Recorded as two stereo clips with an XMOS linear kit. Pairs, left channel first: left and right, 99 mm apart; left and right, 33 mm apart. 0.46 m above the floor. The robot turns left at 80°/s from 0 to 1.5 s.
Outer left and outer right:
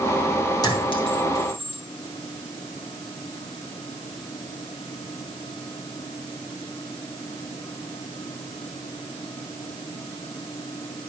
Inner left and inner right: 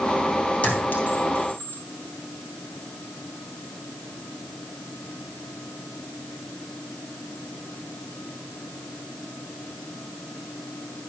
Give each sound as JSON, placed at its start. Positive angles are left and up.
{"t": 0.6, "sound": "a clink", "side_deg": 40, "distance_m": 2.5}